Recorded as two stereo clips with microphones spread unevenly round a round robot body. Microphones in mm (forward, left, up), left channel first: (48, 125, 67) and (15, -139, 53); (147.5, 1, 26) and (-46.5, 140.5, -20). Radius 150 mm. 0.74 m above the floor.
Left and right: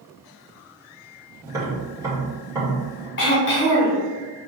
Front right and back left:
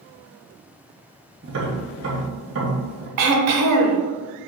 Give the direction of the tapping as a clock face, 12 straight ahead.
6 o'clock.